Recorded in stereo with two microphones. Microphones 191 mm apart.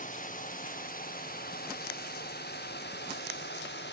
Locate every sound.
0.0 s a drone: 45° left (ahead or behind); by 3.9 s 75° left (ahead or behind)